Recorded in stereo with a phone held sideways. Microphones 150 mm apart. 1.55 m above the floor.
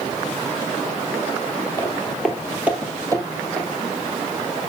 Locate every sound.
1.8 s footsteps: 20° left (ahead or behind), 1.6 m; by 3.7 s 35° right (ahead or behind), 2 m